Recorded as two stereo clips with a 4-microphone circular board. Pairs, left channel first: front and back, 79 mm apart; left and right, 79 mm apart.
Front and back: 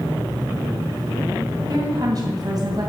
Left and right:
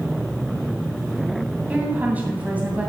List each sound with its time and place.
1.7 s a woman speaking: 160° right, 2.5 m